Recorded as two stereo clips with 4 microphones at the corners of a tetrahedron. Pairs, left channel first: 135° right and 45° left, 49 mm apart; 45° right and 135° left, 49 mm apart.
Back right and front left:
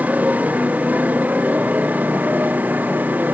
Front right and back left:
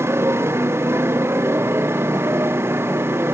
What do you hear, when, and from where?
0.0 s a motorcycle: 105° left; by 3.3 s 100° left